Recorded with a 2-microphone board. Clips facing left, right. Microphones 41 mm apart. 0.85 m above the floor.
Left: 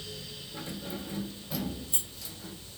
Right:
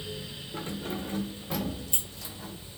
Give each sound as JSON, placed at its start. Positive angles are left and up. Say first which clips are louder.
{"t": 0.5, "sound": "keys jangling", "louder": "right 4 dB", "side_deg": -45, "distance_m": 1.3}